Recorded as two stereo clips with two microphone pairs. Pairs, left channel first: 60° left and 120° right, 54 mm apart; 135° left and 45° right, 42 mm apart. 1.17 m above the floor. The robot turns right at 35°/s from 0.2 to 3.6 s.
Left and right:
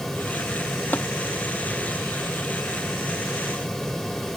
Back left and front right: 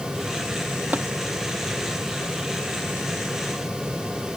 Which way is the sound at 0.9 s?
5° left.